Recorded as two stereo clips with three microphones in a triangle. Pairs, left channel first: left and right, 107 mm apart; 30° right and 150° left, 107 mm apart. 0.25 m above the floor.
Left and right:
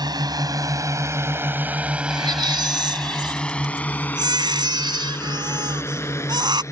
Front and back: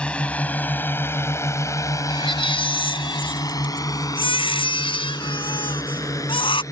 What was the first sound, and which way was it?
A drone, 105° right.